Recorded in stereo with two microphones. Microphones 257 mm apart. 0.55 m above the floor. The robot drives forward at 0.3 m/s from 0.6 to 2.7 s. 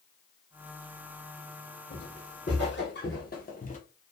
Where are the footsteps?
40° left (ahead or behind), 1.7 m; by 3.8 s 30° left (ahead or behind), 0.8 m.